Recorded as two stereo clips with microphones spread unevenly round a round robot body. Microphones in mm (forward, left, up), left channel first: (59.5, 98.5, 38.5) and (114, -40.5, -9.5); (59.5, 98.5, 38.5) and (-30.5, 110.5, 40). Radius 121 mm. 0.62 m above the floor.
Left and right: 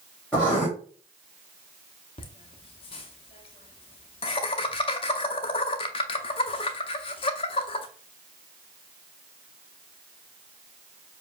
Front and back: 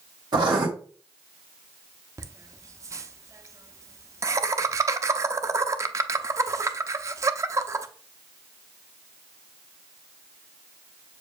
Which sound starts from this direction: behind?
Laughter, at 2.2 s.